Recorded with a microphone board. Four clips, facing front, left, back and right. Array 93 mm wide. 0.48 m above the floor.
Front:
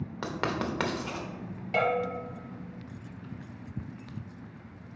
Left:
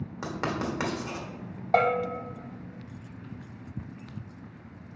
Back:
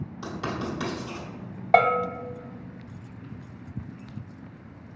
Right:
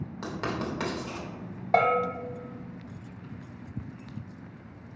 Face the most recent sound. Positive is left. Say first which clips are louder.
# right 1 dB, back 8 dB
turn(degrees=180)